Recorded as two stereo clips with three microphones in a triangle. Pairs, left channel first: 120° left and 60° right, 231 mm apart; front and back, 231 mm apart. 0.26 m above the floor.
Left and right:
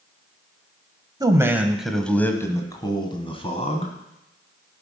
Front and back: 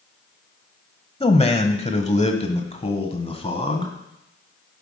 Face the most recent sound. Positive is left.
turn(degrees=65)